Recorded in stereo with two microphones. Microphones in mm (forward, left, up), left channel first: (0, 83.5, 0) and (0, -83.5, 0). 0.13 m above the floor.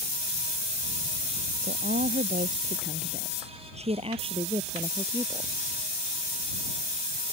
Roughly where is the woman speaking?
Right.